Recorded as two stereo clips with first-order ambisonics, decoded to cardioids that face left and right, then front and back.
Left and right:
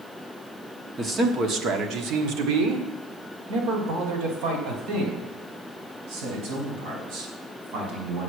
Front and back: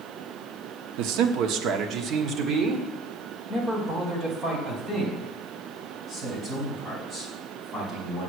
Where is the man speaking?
165° right, 1.1 m; by 8.3 s 90° right, 5.5 m.